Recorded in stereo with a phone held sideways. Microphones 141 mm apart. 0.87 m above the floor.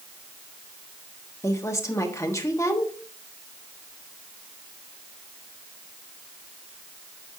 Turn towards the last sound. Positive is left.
turn(degrees=20)  # may be behind; listen again after turning